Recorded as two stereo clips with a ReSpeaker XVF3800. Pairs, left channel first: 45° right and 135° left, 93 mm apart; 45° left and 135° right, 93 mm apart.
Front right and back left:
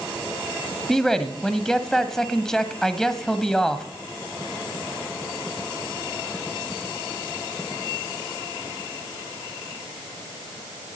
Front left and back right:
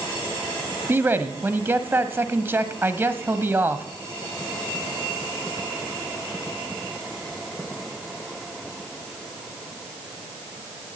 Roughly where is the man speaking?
Behind right.